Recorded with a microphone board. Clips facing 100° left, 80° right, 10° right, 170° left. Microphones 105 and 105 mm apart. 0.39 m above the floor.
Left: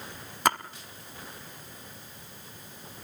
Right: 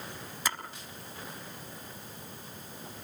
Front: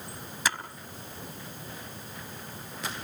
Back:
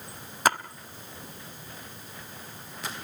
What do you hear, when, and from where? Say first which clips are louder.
0.5 s a splash: left 10 dB, back 7 dB; 130° left, 1.0 m